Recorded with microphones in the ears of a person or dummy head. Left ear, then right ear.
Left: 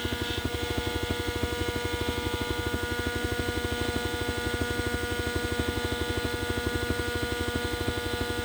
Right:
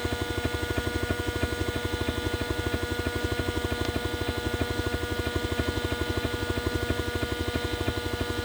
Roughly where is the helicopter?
Right.